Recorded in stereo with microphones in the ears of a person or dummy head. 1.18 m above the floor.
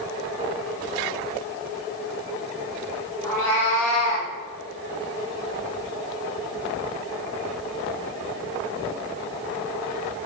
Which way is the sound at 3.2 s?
15° left (ahead or behind).